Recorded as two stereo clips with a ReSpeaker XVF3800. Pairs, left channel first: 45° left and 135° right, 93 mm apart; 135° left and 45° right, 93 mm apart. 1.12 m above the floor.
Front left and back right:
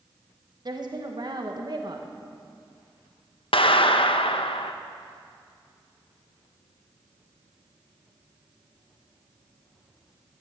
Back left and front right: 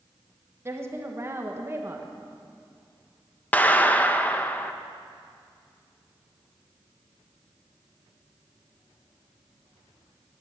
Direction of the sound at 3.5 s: 65° left.